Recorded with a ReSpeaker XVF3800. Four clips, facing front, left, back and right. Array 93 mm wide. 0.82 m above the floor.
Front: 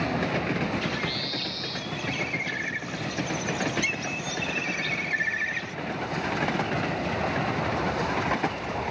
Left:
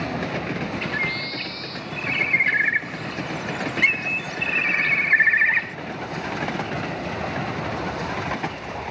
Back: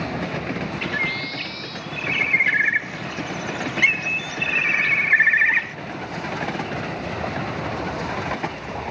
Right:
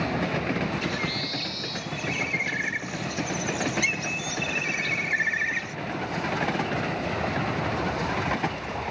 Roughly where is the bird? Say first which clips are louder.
Left 3 dB, back 5 dB; behind left.